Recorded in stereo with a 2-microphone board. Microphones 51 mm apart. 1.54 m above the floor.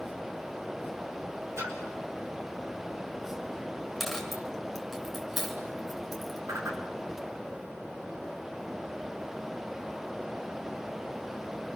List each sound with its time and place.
1.6 s a splash: 65° right (ahead or behind), 6 m
4.0 s a dropped coin: 5° left (ahead or behind), 4 m
6.5 s a whoosh: 75° right (ahead or behind), 4 m